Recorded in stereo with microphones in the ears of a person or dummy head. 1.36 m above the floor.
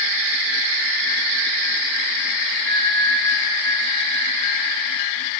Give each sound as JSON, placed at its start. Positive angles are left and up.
{"t": 2.6, "sound": "a bell", "side_deg": 0, "distance_m": 1.2}